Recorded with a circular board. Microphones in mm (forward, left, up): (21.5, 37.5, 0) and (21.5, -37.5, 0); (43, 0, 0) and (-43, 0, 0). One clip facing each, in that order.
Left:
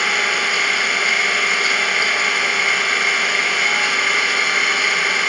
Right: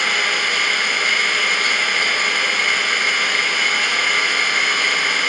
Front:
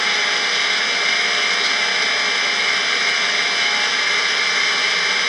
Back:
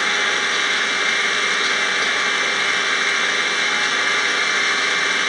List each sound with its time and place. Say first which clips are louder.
0.0 s an engine running: left 1 dB, back 1 dB; 170° left, 0.9 m